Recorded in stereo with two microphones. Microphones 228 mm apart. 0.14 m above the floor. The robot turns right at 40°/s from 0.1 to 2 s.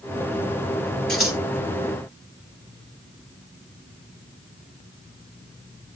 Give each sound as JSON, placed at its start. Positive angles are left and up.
{"t": 1.1, "sound": "scissors", "side_deg": 0, "distance_m": 2.0}